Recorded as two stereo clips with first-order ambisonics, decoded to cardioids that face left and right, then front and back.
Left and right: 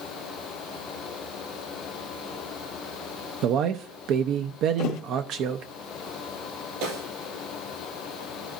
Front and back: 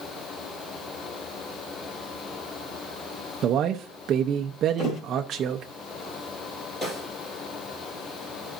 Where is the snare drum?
80° right, 7 m.